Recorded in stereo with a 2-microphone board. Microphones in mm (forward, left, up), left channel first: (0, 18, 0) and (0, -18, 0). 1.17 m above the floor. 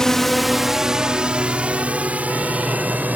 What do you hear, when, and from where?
0.0 s a drone: 15° left (ahead or behind); by 3.1 s 50° right (ahead or behind)